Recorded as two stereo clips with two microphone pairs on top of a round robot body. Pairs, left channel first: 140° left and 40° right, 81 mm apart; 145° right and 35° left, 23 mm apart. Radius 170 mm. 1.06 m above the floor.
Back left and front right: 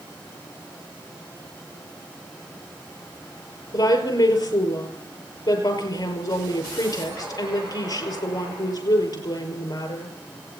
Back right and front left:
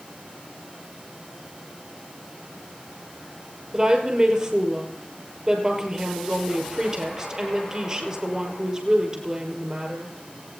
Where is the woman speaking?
105° left, 6 m.